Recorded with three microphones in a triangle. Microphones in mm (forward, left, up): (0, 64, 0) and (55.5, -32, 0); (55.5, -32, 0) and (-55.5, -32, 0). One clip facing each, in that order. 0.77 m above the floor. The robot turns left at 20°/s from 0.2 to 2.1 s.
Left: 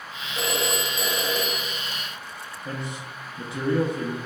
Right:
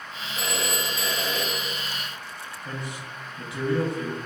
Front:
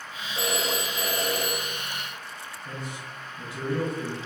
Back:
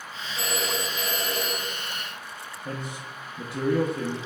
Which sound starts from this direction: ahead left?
A phone ringing, at 0.3 s.